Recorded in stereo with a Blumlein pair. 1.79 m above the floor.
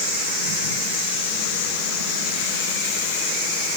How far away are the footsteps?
No footsteps in this recording.